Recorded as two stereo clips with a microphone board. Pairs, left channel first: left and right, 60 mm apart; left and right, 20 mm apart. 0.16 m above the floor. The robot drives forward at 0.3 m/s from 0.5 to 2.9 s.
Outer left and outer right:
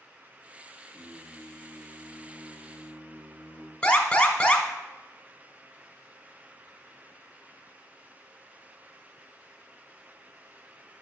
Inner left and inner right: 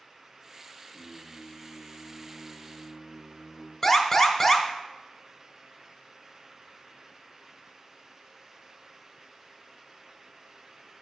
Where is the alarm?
15° left (ahead or behind), 0.8 m.